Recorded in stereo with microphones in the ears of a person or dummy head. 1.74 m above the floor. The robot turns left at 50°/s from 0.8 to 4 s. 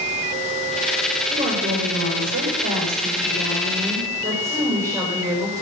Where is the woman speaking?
30° right, 8.5 m; by 5.6 s 165° right, 8.5 m.